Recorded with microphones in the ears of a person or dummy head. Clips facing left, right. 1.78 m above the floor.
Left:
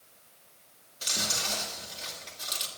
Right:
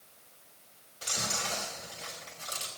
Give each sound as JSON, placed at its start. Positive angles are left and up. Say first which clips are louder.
{"t": 1.0, "sound": "chewing", "louder": "even", "side_deg": 25, "distance_m": 3.0}